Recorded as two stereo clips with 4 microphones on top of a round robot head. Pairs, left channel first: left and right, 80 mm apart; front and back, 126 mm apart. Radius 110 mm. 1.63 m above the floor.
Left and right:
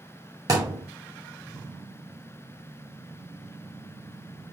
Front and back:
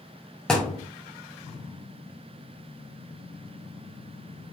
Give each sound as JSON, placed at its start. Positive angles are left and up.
{"t": 0.5, "sound": "a thud", "azimuth_deg": -85, "distance_m": 1.5}